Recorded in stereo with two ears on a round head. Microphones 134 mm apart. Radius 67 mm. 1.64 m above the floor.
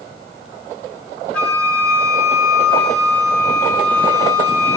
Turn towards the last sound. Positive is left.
turn(degrees=10)  # may be behind; listen again after turning